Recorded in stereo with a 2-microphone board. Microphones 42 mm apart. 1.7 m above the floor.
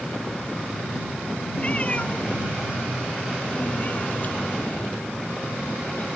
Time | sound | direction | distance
1.6 | a cat meowing | 30° left (ahead or behind) | ?